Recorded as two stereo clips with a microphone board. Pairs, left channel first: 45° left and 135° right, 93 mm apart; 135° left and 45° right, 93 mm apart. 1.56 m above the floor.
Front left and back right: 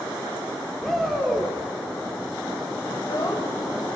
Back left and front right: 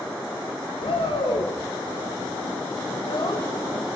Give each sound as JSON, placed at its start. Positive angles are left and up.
{"t": 0.8, "sound": "a shout", "azimuth_deg": 135, "distance_m": 4.0}
{"t": 2.9, "sound": "a child speaking", "azimuth_deg": 100, "distance_m": 5.0}